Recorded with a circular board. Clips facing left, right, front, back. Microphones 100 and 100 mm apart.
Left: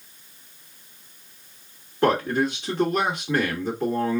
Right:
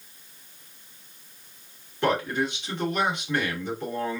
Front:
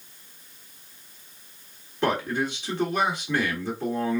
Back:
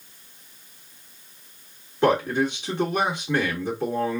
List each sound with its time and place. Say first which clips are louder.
2.0 s a man speaking: left 4 dB, back 5 dB; 115° left, 1.4 m